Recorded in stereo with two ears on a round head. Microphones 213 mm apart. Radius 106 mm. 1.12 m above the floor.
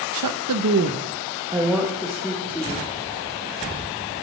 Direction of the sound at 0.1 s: 85° right.